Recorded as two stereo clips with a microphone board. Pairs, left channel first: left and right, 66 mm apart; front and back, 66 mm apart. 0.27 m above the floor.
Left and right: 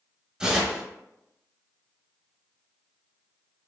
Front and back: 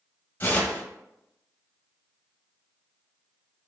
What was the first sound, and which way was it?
Tearing paper, 25° right.